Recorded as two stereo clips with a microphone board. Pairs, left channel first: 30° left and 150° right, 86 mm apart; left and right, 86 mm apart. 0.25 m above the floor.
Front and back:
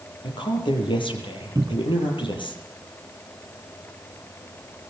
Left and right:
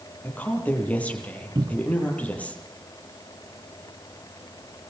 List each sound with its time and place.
0.2 s a woman speaking: 15° left, 7.5 m
1.6 s a cupboard door: 110° right, 1.0 m